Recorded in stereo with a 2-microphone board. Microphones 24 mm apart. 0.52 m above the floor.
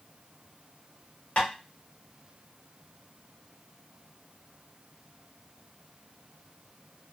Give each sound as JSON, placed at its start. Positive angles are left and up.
{"t": 1.4, "sound": "tapping", "side_deg": 75, "distance_m": 1.6}